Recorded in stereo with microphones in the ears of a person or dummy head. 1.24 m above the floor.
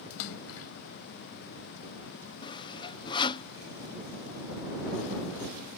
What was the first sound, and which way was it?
A splash, 75° left (ahead or behind).